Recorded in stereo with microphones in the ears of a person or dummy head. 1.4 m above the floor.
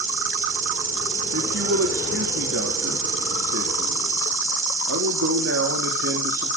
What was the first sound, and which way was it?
An insect, 45° right (ahead or behind).